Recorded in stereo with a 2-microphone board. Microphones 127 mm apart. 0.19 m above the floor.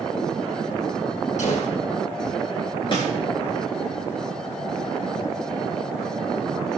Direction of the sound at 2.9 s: 40° left (ahead or behind).